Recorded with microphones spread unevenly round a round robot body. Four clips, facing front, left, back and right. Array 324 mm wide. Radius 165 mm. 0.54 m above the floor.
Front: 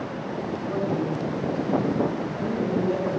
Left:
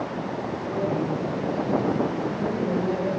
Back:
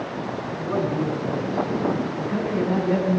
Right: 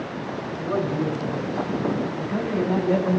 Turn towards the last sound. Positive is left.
turn(degrees=-140)